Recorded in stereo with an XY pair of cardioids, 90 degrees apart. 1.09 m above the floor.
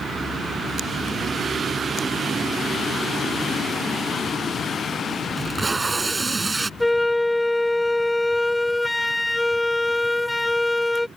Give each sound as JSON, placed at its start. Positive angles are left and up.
{"t": 5.4, "sound": "tape being pulled", "azimuth_deg": -30}
{"t": 6.8, "sound": "a flute", "azimuth_deg": 10}